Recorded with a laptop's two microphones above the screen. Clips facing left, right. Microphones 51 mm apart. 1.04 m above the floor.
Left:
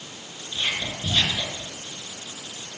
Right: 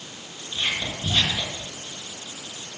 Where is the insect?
I don't hear an insect.